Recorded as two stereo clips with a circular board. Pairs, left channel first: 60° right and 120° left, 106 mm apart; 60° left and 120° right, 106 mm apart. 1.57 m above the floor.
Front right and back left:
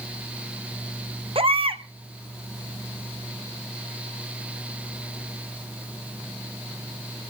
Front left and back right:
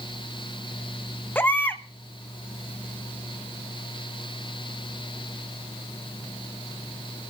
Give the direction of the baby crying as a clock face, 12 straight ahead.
8 o'clock.